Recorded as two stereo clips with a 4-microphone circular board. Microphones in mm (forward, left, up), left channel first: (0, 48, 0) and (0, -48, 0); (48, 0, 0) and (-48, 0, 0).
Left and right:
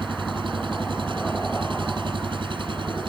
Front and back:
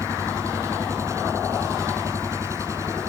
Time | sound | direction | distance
0.0 | an engine running | 120° right | ?